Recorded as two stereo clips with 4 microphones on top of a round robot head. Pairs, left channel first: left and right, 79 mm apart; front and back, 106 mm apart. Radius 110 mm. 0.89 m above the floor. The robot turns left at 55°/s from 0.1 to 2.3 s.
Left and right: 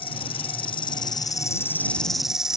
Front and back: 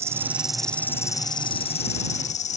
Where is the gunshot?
I don't hear a gunshot.